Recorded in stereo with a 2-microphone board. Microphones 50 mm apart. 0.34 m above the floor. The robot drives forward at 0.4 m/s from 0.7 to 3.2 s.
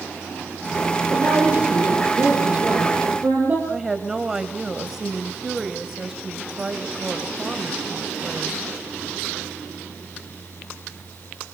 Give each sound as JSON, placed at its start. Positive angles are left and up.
{"t": 1.1, "sound": "a woman speaking", "side_deg": -40, "distance_m": 9.5}
{"t": 3.7, "sound": "a woman speaking", "side_deg": -10, "distance_m": 1.6}